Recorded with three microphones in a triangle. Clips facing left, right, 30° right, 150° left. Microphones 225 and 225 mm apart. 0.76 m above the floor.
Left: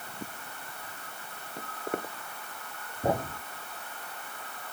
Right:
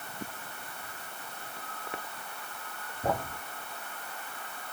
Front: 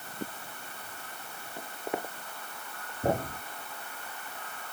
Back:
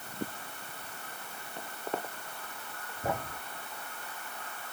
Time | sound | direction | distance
1.6 | footsteps | 50° left | ?
3.0 | a thud | 25° left | ?